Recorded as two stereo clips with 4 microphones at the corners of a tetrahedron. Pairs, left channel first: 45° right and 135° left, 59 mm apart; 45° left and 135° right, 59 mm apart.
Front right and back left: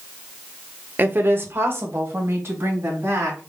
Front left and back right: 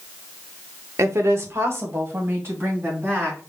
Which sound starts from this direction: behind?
A woman speaking, at 1.0 s.